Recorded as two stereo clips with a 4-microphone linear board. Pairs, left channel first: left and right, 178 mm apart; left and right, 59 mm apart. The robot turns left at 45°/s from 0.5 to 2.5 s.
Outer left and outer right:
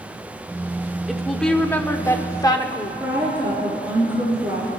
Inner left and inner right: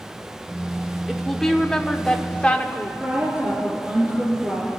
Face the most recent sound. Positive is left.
turn(degrees=-10)  # may be behind; listen again after turning